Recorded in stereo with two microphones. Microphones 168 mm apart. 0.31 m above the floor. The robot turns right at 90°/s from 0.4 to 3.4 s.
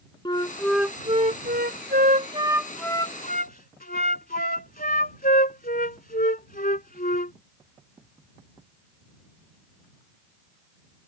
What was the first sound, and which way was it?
A flute, 150° left.